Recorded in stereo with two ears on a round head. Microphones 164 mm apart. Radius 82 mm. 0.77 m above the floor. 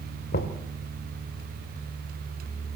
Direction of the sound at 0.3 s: 55° left (ahead or behind).